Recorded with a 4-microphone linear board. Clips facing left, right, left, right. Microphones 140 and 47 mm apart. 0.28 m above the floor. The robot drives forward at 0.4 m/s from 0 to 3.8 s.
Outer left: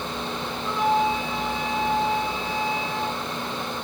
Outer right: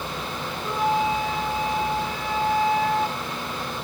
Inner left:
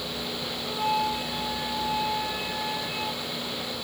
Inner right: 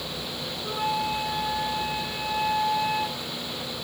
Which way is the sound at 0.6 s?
35° right (ahead or behind).